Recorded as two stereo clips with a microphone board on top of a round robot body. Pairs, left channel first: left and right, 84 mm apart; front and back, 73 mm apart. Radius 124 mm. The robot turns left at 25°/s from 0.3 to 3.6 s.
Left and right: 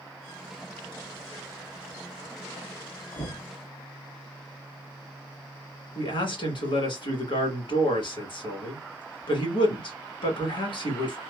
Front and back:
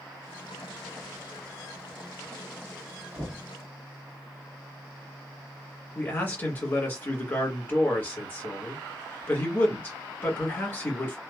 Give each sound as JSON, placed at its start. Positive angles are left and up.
{"t": 3.1, "sound": "knocking", "azimuth_deg": 125, "distance_m": 1.7}
{"t": 6.0, "sound": "a man speaking", "azimuth_deg": 65, "distance_m": 1.5}